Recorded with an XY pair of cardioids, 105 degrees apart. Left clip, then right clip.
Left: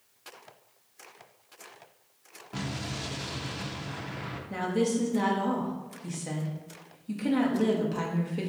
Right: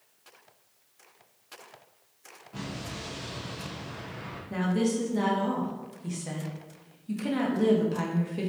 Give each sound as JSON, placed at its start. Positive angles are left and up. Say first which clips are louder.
{"t": 2.5, "sound": "an explosion", "louder": "left 3 dB", "azimuth_deg": 55, "distance_m": 0.5}
{"t": 4.5, "sound": "a woman speaking", "louder": "left 1 dB", "azimuth_deg": 5, "distance_m": 0.9}